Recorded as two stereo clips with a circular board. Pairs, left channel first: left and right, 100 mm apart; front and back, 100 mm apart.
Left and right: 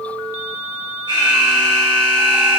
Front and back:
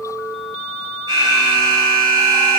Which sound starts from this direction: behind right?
An alarm, at 1.1 s.